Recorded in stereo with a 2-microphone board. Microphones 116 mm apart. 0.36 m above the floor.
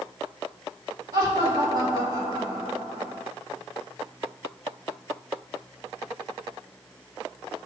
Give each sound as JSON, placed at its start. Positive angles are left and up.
{"t": 1.1, "sound": "laughter", "side_deg": -30, "distance_m": 1.7}